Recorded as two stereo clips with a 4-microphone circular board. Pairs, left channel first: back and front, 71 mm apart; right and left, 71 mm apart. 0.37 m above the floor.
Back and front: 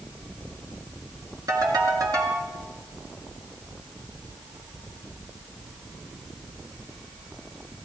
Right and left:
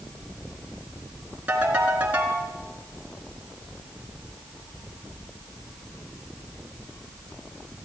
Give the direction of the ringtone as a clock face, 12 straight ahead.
11 o'clock.